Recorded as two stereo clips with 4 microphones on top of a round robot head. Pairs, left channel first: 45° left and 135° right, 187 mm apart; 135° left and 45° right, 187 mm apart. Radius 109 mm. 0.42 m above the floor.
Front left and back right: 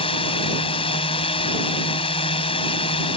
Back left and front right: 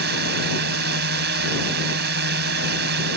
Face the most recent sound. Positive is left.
turn(degrees=-15)